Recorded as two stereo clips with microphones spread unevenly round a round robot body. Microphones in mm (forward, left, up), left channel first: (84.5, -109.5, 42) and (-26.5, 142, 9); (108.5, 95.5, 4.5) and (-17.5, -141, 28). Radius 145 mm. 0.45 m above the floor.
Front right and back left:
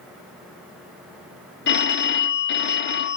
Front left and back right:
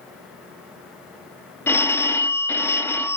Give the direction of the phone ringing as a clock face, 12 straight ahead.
1 o'clock.